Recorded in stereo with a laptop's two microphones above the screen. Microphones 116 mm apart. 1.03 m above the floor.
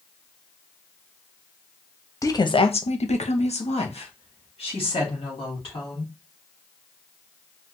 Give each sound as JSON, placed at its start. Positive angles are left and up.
{"t": 2.2, "sound": "a woman speaking", "side_deg": 25, "distance_m": 0.6}